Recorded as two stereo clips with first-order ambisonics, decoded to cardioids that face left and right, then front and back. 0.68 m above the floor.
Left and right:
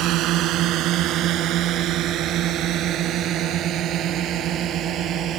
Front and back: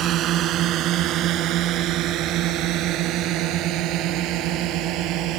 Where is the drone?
130° right; by 5.4 s 145° right.